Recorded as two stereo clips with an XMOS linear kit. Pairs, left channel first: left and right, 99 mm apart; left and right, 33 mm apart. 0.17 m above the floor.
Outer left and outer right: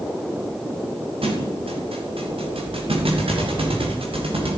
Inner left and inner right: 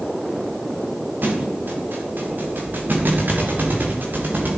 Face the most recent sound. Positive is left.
turn(degrees=-70)  # may be behind; listen again after turning